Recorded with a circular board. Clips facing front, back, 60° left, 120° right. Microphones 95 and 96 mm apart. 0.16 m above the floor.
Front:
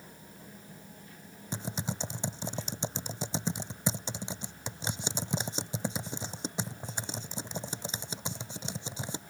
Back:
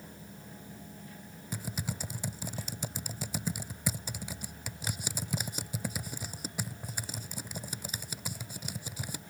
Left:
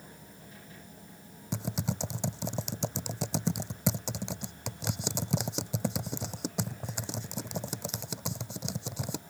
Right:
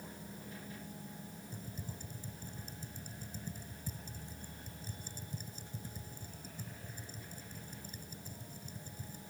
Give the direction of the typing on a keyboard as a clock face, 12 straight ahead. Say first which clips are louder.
Front 2 dB, left 16 dB; 10 o'clock.